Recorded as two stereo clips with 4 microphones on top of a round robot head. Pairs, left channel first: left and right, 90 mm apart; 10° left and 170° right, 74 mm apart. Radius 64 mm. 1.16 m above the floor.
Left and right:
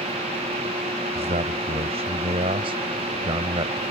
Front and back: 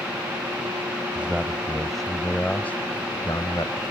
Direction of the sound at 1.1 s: 95° right.